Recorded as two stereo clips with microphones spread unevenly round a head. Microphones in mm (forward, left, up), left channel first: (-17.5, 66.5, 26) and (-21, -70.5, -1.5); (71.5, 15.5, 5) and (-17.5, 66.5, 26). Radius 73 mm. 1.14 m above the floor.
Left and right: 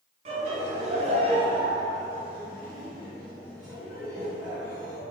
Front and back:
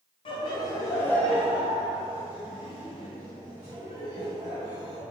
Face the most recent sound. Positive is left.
turn(degrees=170)